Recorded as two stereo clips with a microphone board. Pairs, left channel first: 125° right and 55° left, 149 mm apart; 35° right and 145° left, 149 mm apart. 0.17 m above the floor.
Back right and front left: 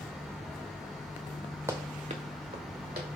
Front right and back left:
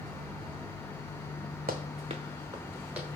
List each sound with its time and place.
1.7 s running footsteps: 125° left, 0.6 m; by 3.1 s 65° left, 1.2 m